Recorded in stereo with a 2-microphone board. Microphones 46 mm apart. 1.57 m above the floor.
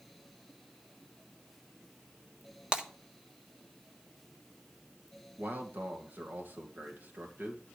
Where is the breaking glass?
25° right (ahead or behind), 1.5 m.